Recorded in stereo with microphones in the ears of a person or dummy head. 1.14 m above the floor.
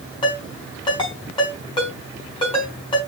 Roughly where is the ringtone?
Left.